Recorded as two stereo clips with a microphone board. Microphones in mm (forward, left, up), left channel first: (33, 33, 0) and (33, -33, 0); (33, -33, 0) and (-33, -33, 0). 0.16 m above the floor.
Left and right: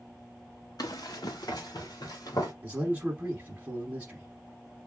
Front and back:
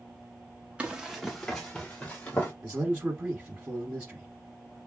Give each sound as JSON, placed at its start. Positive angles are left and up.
{"t": 0.8, "sound": "running footsteps", "azimuth_deg": 105, "distance_m": 0.9}
{"t": 2.6, "sound": "a man speaking", "azimuth_deg": -130, "distance_m": 1.1}